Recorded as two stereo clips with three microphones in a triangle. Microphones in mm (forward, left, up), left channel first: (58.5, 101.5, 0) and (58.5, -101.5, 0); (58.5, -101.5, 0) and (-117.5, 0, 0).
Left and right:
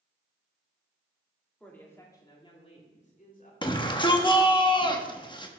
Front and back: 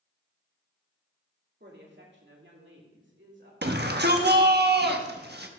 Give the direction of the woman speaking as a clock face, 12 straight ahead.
6 o'clock.